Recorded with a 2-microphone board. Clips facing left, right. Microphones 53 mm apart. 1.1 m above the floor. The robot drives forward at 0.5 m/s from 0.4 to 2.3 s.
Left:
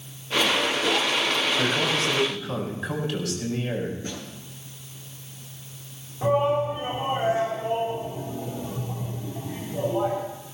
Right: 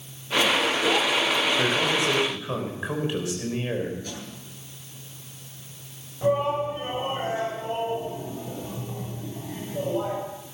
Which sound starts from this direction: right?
A man speaking, at 1.6 s.